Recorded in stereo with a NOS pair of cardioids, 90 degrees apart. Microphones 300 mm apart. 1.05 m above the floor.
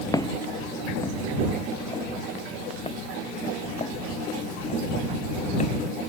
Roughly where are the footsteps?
Ahead.